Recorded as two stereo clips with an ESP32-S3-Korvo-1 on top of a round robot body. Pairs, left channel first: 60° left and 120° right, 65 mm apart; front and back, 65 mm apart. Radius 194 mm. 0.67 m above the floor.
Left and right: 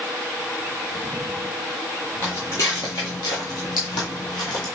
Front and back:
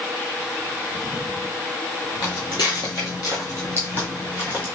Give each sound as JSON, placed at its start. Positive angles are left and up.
{"t": 2.2, "sound": "footsteps", "azimuth_deg": -5, "distance_m": 1.0}